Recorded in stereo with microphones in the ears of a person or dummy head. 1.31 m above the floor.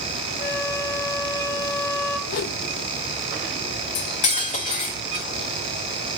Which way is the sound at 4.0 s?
40° left (ahead or behind).